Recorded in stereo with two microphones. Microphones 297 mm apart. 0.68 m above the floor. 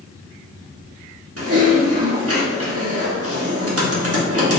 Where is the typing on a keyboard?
50° right (ahead or behind), 0.9 m.